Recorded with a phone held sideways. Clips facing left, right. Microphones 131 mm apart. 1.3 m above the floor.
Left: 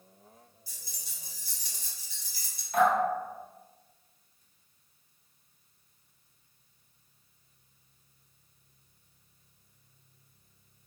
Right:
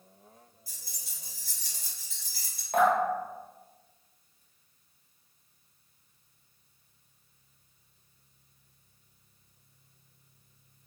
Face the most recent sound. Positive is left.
turn(degrees=-50)  # may be behind; listen again after turning